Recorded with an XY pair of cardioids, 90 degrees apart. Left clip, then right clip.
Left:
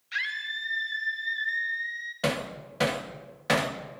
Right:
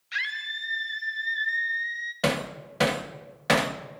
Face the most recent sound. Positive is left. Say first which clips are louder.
# right 2 dB
turn(degrees=-30)